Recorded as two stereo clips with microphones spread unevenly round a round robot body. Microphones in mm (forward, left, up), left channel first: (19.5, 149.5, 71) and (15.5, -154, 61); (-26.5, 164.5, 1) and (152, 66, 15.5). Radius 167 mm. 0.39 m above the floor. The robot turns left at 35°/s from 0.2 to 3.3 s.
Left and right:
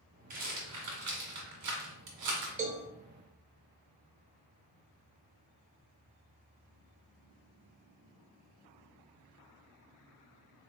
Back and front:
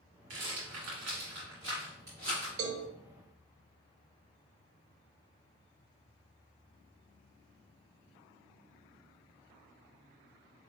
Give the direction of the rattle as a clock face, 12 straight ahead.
1 o'clock.